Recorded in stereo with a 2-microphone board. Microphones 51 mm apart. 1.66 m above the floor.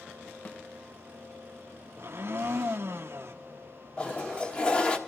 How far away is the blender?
About 0.9 m.